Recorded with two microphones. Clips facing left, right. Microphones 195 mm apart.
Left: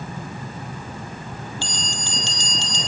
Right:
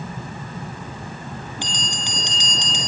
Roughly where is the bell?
Centre.